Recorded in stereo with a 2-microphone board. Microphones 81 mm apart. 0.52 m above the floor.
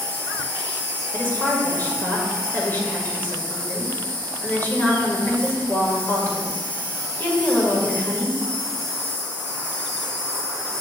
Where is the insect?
20° left (ahead or behind), 3.5 m.